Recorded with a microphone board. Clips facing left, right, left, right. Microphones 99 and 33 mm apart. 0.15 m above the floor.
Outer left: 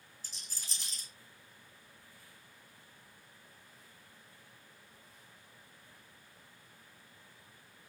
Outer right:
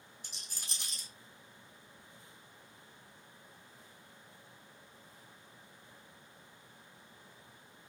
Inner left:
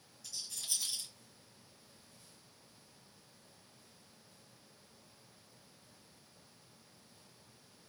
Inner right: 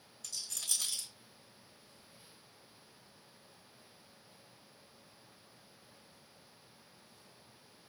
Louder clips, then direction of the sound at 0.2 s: Outer right 1 dB, inner right 2 dB; 65° right (ahead or behind).